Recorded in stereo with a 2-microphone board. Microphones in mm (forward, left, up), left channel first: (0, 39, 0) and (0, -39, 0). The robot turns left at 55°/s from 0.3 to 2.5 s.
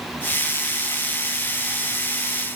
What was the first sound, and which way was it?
Only background noise.